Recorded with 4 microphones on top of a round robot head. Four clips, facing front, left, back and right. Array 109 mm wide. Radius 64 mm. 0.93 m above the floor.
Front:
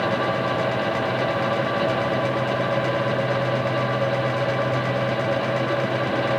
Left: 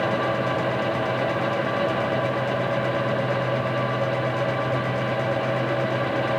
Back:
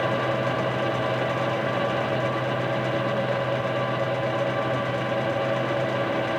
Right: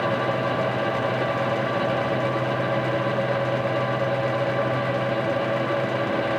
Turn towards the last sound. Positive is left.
No sound to turn to.